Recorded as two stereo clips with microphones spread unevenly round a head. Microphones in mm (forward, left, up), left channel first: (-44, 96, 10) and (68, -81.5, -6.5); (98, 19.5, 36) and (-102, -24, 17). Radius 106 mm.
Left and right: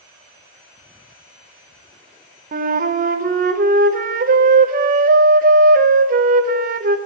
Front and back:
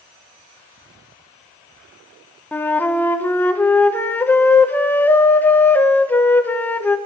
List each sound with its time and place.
2.5 s a flute: 70° right, 0.6 m